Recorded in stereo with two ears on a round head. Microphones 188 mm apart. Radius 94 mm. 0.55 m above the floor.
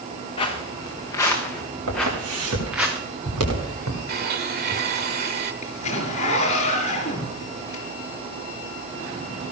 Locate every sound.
0.4 s footsteps: 25° left (ahead or behind), 3.5 m; by 2.9 s 5° right (ahead or behind), 4 m
1.9 s footsteps: 70° right (ahead or behind), 8.5 m; by 4.0 s 80° right, 8 m
4.1 s a blender: 50° right (ahead or behind), 1.6 m
5.6 s a zipper: 35° left (ahead or behind), 4 m